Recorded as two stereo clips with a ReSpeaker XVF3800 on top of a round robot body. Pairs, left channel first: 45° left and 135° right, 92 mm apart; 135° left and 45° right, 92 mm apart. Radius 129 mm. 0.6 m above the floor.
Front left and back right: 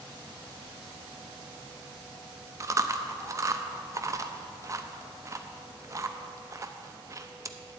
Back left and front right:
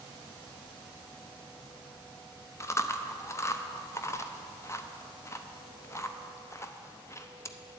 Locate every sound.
2.6 s chewing: 175° right, 0.7 m